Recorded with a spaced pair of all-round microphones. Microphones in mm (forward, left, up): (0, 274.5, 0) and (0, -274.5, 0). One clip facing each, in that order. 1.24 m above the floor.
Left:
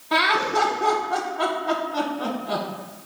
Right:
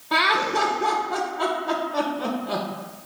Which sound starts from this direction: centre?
Laughter, at 0.1 s.